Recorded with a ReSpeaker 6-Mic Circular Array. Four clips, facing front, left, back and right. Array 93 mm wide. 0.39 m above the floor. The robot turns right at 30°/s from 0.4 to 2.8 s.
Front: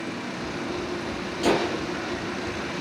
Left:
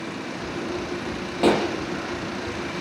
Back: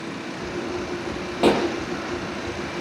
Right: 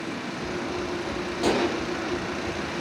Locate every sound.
1.4 s a pop: 150° left, 5.5 m; by 1.6 s 155° left, 5.5 m